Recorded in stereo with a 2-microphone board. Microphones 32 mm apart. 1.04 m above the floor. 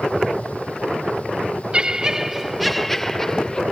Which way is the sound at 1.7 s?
35° right (ahead or behind).